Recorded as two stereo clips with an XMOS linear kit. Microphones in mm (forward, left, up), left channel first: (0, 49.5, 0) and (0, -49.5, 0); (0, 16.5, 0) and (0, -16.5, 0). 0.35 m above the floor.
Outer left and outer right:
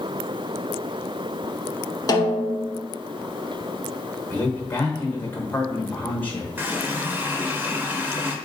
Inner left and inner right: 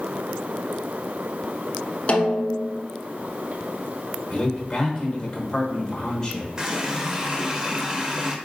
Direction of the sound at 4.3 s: 20° left (ahead or behind).